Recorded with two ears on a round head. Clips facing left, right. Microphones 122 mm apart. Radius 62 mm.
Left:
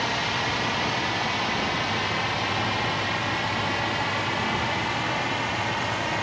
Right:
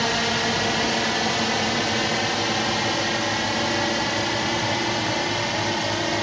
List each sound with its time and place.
0.0 s a drone: 55° right (ahead or behind); by 6.2 s 40° right (ahead or behind)